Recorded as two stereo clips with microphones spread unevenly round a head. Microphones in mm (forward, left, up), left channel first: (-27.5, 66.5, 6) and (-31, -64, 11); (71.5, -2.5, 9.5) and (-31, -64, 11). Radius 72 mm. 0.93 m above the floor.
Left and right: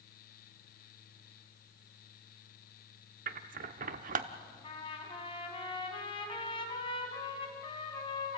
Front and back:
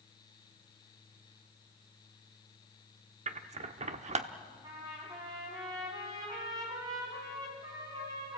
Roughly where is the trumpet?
Behind left.